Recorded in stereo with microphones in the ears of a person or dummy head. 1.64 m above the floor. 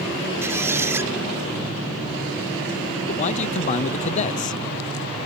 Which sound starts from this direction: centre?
A squeak, at 0.4 s.